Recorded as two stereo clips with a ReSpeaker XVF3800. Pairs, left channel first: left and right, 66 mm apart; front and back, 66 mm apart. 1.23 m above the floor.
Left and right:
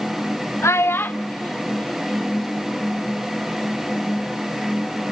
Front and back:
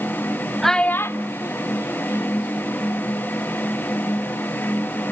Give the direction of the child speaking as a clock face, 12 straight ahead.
9 o'clock.